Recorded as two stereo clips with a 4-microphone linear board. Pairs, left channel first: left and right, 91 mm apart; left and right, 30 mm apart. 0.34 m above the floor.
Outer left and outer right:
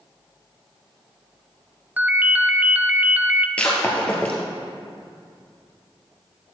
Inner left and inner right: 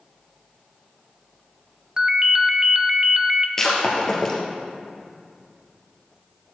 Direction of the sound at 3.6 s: 15° left (ahead or behind).